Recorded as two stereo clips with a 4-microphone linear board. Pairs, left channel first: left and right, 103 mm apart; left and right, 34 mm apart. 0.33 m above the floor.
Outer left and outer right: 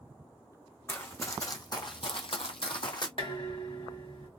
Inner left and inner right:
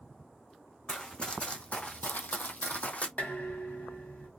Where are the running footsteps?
25° left (ahead or behind), 1.1 m; by 3.1 s 45° left (ahead or behind), 0.8 m.